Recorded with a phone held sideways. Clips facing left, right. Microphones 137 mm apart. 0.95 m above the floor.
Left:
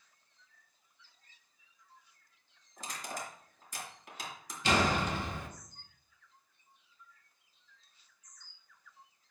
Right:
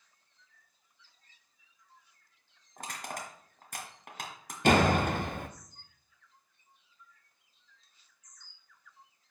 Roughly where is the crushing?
Right.